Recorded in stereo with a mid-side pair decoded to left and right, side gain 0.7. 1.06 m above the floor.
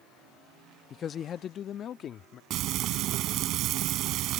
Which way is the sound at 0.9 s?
35° left.